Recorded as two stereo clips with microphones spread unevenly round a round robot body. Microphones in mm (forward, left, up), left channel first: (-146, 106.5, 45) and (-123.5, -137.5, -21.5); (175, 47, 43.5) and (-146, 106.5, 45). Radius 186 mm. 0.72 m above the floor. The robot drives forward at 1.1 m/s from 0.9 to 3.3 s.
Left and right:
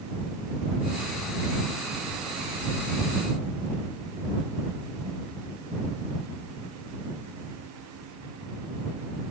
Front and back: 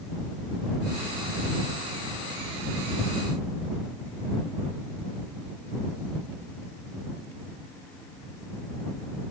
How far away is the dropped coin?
I don't hear a dropped coin.